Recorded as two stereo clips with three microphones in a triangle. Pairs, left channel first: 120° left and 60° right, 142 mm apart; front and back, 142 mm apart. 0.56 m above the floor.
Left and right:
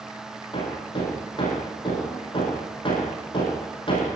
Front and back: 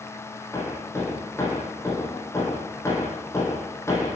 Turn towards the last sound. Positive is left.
turn(degrees=70)